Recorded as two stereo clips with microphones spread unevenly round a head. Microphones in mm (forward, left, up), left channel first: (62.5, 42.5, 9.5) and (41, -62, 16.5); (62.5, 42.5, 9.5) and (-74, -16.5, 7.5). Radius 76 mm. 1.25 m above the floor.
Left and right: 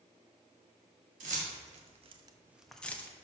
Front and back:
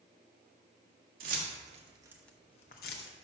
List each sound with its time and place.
1.2 s keys jangling: 125° right, 1.7 m; by 3.1 s 5° left, 1.3 m